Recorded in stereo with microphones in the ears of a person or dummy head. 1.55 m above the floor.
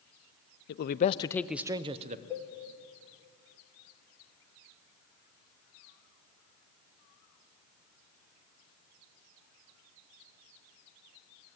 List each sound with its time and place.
0.7 s a man speaking: 60° left (ahead or behind), 0.7 m; by 2.2 s 40° right (ahead or behind), 0.8 m
2.3 s a cowbell: 15° left (ahead or behind), 1.4 m